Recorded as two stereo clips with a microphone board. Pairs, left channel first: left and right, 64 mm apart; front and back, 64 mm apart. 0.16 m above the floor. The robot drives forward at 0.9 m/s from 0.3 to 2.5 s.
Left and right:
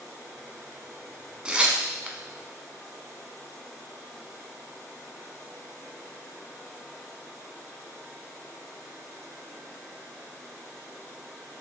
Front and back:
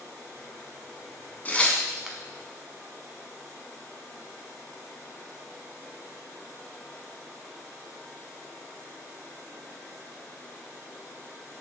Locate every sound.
1.4 s tearing paper: 30° right, 0.9 m; by 2.2 s 125° right, 0.8 m